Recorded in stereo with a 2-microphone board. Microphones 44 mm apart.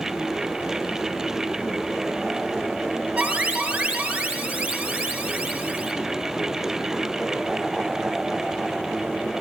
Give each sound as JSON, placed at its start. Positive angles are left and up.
{"t": 3.2, "sound": "an alarm", "side_deg": -35, "distance_m": 3.5}